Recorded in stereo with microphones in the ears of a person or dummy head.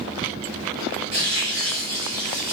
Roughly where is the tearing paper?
Right.